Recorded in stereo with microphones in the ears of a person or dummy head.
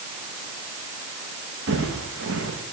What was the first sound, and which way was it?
Footsteps, 75° right (ahead or behind).